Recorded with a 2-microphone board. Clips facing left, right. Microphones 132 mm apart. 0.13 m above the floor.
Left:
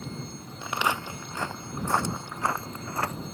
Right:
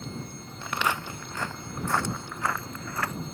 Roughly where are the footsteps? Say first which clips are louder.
Left 1 dB; centre.